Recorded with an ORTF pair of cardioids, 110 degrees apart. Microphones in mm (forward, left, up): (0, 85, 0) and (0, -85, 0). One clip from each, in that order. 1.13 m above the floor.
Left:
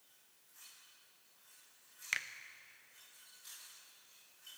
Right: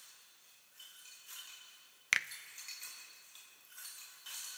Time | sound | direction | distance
2.1 | a finger snap | 25° right | 0.6 m